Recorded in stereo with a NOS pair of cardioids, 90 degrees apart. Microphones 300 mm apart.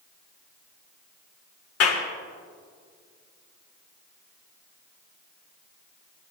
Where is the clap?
55° left, 2 m.